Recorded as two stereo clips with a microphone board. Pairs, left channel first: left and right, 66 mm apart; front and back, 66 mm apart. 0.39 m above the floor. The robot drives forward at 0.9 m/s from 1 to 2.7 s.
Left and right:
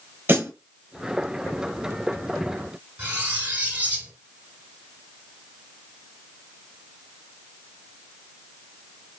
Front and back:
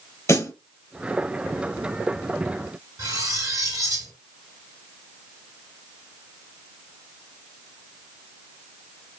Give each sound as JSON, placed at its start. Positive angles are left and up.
{"t": 0.3, "sound": "a snare drum", "azimuth_deg": -35, "distance_m": 1.5}
{"t": 3.0, "sound": "cutlery clinking", "azimuth_deg": -155, "distance_m": 1.2}